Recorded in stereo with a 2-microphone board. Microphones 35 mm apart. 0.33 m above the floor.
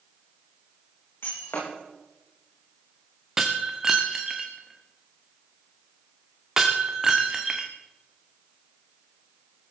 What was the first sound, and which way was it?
Breaking glass, 90° left.